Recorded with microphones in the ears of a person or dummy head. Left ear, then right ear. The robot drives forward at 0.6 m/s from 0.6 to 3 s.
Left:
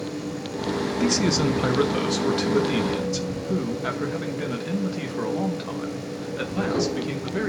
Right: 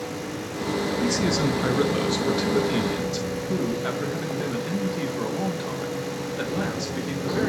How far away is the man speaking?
About 0.7 m.